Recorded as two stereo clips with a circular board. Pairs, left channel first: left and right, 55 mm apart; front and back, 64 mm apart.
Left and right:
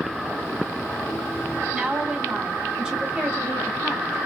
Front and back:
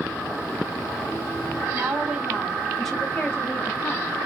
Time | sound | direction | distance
1.7 | a woman speaking | 155° right | 1.4 m